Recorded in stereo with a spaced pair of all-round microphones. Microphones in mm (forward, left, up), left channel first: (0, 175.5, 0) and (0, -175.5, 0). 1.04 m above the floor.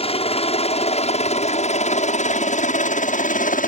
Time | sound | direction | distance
0.0 | a helicopter | 15° left (ahead or behind) | ?